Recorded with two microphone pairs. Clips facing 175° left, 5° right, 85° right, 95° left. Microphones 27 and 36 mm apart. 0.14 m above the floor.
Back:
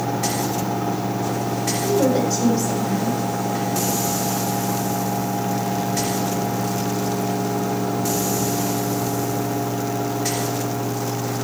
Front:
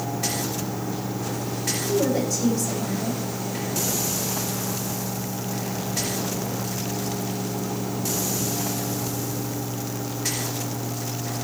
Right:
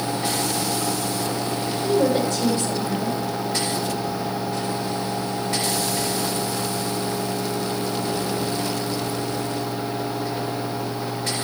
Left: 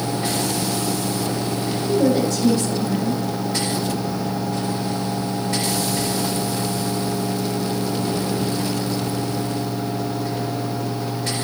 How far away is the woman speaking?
About 6 m.